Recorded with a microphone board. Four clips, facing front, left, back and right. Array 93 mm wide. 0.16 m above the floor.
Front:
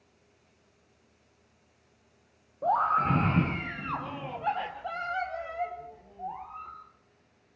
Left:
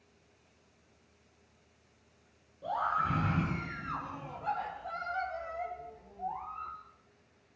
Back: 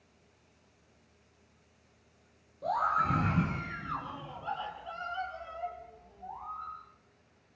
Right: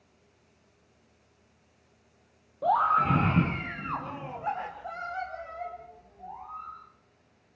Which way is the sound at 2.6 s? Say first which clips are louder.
Right 8 dB, front 4 dB; 55° right.